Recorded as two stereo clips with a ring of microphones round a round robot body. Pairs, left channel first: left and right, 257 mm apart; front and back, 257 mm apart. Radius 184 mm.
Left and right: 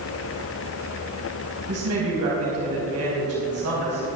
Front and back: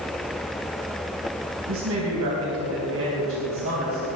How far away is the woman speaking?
About 4 m.